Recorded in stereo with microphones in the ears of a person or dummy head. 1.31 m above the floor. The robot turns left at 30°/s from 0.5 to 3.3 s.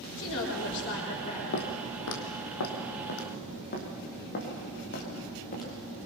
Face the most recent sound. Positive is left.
turn(degrees=45)  # may be behind; listen again after turning